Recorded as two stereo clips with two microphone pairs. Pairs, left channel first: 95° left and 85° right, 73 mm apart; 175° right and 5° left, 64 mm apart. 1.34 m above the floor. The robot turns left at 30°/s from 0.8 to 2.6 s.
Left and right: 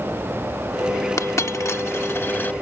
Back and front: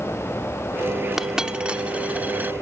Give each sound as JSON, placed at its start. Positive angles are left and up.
{"t": 1.2, "sound": "a dropped coin", "azimuth_deg": 85}